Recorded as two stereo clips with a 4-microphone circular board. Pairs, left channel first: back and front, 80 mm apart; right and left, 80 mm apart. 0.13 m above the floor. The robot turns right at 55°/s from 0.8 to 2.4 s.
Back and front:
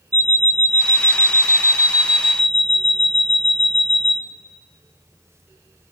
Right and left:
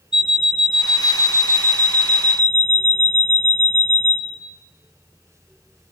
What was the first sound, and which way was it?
An alarm clock, 10° left.